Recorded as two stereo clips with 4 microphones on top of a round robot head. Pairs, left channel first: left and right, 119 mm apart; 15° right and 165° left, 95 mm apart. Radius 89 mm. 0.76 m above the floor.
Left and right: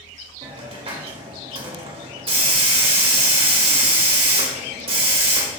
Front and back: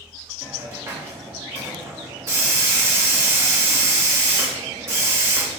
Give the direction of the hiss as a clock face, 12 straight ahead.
4 o'clock.